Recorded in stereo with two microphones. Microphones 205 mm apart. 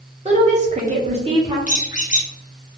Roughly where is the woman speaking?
Right.